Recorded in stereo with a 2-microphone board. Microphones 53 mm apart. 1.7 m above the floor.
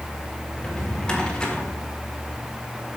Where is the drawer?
15° left (ahead or behind), 1.8 m.